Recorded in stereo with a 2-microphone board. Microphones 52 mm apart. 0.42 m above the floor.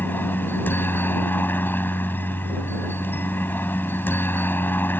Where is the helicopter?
40° left (ahead or behind).